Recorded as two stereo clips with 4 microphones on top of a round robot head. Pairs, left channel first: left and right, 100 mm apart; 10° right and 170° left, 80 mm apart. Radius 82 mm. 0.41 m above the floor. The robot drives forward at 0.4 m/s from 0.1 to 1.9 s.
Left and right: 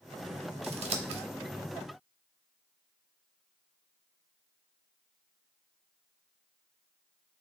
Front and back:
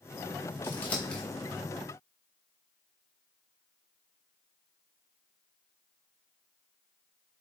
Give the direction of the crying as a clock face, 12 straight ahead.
I don't hear crying.